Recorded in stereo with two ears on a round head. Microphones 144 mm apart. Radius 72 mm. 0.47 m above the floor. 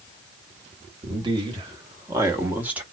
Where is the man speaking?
30° right (ahead or behind), 2 m; by 2.8 s 10° right (ahead or behind), 1.5 m.